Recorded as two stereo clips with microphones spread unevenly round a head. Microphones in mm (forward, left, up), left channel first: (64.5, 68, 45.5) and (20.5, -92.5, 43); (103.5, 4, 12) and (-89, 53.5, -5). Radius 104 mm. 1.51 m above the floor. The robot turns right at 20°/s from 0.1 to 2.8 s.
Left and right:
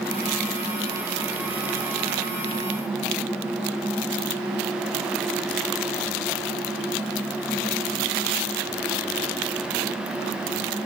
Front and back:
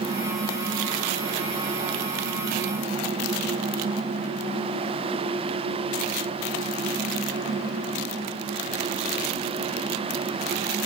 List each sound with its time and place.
Only background noise.